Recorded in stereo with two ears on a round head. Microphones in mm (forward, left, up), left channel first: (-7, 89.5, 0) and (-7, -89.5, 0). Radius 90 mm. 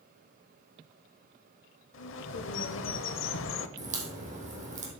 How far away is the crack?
About 3 m.